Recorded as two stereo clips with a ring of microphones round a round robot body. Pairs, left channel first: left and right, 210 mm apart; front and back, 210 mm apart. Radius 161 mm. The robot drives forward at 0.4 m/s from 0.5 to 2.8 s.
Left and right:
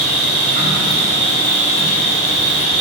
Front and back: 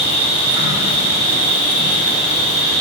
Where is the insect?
100° right, 2.5 m; by 2.8 s 125° right, 2.5 m.